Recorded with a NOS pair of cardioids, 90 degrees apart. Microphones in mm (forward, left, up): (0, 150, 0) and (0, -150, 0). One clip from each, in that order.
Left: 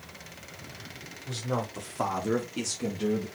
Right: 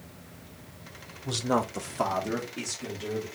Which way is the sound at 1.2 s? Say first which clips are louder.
Right 5 dB; 50° right.